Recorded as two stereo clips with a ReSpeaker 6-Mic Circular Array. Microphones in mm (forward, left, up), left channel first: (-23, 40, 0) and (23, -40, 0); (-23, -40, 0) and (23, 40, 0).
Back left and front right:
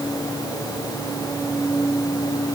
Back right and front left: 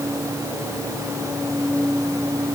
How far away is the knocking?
No knocking in this recording.